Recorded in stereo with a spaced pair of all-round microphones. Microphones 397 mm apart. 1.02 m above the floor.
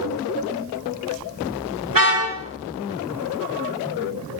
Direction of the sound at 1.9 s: 55° right (ahead or behind).